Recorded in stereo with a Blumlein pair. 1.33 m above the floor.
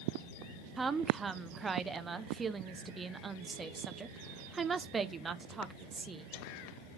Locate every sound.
0.8 s a woman speaking: 15° right, 0.6 m